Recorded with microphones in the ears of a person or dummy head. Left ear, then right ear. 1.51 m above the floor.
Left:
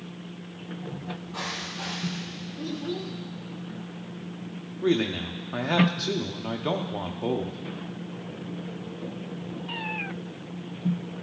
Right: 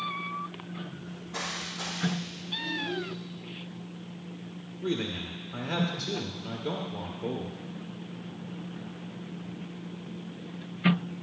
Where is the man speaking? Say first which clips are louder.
Left 7 dB; 50° left (ahead or behind), 0.8 m.